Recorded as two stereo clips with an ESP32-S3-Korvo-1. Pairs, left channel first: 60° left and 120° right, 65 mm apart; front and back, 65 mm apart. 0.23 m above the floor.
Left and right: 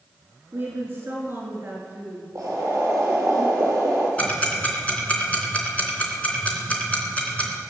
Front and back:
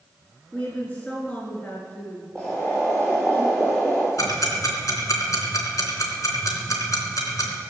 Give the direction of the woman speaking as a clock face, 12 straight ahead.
2 o'clock.